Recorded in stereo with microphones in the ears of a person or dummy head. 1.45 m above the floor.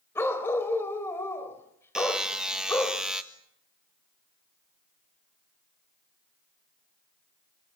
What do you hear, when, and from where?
0.1 s a dog barking: 15° left (ahead or behind), 3 m
1.9 s a buzzer: centre (ahead or behind), 1.5 m